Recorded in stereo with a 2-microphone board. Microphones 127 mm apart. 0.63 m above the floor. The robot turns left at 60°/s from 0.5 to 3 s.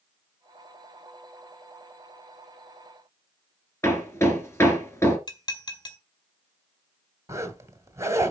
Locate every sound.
3.8 s hammering: 20° left (ahead or behind), 2.5 m
5.3 s dishes clattering: 35° left (ahead or behind), 1.7 m
7.3 s a zipper: 20° right (ahead or behind), 1.4 m